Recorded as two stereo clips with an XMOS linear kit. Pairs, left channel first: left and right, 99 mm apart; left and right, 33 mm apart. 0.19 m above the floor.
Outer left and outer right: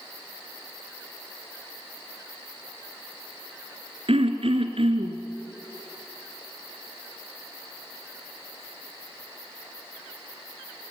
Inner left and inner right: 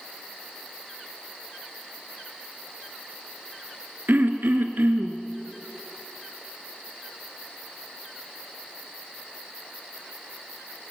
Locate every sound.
4.1 s throat clearing: 65° right (ahead or behind), 1.9 m